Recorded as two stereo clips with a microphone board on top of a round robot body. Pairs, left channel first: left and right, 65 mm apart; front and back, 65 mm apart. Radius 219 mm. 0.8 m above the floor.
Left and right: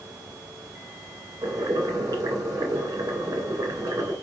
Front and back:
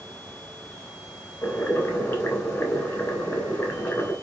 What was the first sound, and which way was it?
Boiling, 55° right.